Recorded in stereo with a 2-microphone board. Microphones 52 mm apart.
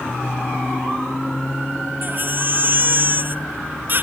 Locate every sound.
2.0 s a baby crying: 40° right (ahead or behind)